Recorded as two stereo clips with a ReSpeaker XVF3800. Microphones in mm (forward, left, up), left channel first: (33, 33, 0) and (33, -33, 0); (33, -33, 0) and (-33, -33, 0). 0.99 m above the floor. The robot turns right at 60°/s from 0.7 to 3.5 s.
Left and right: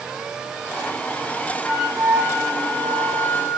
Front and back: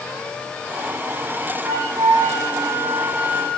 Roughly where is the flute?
Behind.